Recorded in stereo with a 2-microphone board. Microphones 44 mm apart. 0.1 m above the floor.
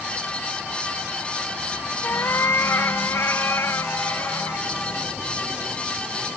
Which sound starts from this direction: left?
A cat meowing, at 2.0 s.